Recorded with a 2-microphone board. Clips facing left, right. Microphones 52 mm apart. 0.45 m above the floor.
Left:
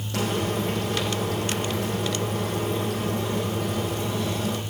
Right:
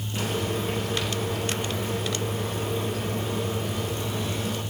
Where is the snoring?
I don't hear snoring.